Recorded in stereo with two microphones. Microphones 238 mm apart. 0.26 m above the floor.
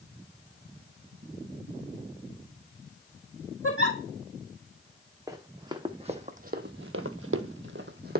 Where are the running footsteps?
15° right (ahead or behind), 1.2 m; by 8.2 s 40° right (ahead or behind), 0.8 m.